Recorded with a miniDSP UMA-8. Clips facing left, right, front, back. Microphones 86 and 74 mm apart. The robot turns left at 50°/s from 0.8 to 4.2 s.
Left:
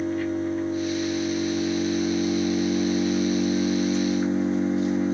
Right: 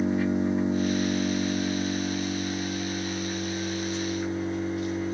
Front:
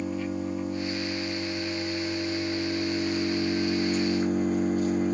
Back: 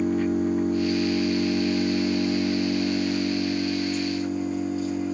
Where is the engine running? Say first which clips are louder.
Right 1 dB, back 7 dB; 160° right, 1.5 m; by 5.2 s 30° left, 1.5 m.